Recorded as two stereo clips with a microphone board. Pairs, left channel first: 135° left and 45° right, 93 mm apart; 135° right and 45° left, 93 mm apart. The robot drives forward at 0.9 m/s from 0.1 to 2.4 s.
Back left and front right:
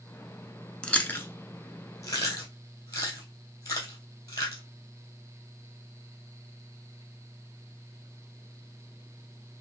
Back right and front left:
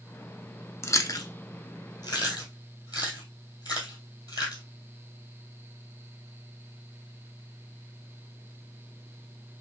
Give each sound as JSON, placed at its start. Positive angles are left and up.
{"t": 0.8, "sound": "chewing", "azimuth_deg": -155, "distance_m": 0.6}